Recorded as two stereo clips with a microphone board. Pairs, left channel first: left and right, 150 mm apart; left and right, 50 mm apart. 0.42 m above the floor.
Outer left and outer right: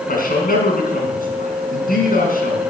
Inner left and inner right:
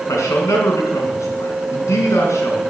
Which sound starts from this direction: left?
A man speaking, at 0.1 s.